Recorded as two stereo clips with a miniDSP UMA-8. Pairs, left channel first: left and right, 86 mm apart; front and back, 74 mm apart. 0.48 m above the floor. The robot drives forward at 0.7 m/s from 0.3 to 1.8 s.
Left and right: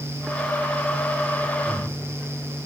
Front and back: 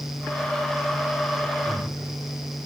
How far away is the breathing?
About 8 m.